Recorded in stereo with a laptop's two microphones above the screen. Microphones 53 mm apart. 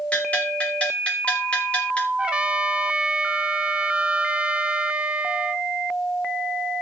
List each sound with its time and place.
0.1 s a bell: 25° left (ahead or behind), 5 m
2.2 s a trumpet: 20° right (ahead or behind), 0.6 m